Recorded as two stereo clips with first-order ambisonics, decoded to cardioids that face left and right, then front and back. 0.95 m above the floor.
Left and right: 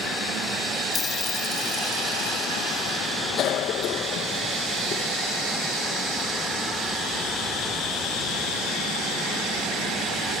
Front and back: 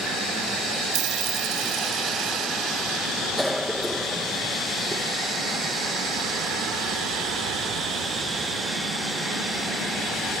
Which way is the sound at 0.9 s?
150° left.